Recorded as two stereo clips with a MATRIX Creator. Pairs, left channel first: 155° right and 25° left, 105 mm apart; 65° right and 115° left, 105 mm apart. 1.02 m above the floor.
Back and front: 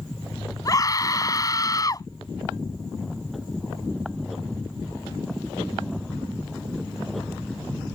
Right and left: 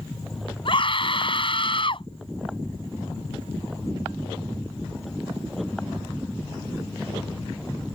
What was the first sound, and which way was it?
A scream, 105° right.